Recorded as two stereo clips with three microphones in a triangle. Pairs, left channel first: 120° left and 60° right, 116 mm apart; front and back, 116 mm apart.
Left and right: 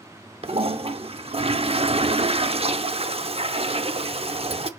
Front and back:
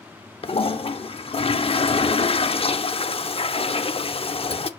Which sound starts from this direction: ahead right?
A toilet flushing, at 0.4 s.